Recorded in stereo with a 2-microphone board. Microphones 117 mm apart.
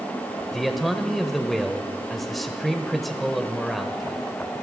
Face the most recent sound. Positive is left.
turn(degrees=0)  # may be behind; listen again after turning